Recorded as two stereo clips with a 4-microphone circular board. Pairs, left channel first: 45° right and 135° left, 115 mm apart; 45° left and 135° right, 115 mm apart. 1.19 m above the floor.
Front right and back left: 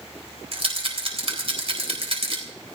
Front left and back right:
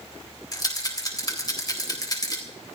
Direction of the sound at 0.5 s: 100° left.